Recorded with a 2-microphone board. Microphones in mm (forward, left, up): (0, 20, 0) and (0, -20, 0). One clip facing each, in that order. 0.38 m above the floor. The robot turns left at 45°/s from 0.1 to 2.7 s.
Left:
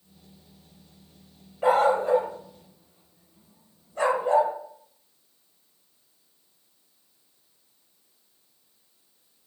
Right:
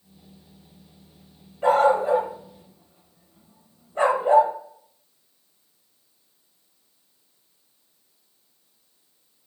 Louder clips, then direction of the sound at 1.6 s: Right 2 dB; 10° left (ahead or behind).